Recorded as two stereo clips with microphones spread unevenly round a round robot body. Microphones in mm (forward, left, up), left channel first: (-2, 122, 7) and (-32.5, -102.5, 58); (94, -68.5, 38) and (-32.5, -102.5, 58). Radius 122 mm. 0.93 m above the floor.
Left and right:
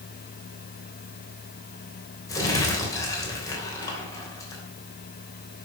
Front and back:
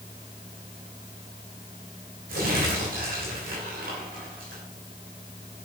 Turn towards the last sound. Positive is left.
turn(degrees=160)